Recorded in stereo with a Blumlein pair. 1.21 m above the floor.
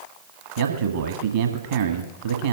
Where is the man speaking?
60° right, 1.6 m.